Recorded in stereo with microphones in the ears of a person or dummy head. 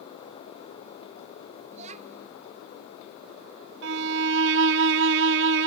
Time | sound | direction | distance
1.7 | a child speaking | 30° right (ahead or behind) | ?
3.8 | a violin | 60° right (ahead or behind) | ?